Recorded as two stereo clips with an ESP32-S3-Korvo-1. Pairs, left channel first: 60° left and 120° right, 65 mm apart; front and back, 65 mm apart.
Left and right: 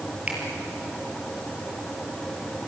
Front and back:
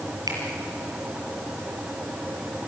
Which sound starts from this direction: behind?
A finger snap, at 0.3 s.